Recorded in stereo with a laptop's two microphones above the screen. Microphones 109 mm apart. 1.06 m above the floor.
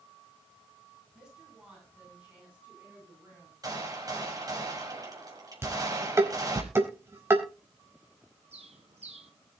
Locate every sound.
1.1 s a woman speaking: 5° right (ahead or behind), 9 m; by 3.5 s 20° right (ahead or behind), 8.5 m
3.6 s a gunshot: 35° right (ahead or behind), 6 m
5.6 s dishes clattering: 25° right (ahead or behind), 4.5 m
8.5 s a bird: 80° right, 4 m